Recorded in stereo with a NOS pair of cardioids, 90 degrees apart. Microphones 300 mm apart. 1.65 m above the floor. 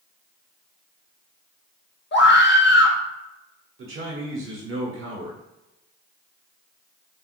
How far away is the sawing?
No sawing in this recording.